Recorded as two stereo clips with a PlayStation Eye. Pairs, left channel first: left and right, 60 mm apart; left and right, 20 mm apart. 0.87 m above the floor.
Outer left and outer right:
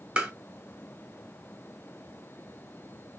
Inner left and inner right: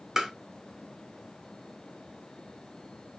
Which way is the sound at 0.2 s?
20° right (ahead or behind).